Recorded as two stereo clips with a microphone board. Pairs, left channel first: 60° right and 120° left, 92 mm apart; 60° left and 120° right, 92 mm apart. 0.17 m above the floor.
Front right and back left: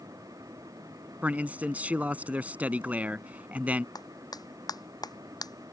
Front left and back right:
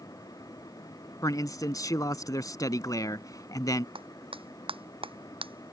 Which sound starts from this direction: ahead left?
A man speaking, at 1.2 s.